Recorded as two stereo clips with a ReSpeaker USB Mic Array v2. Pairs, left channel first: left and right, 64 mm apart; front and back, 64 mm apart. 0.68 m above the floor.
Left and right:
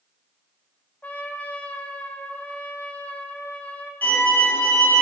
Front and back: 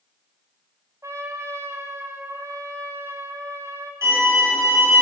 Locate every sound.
1.0 s a trumpet: 150° left, 0.6 m
4.0 s a violin: 150° left, 4 m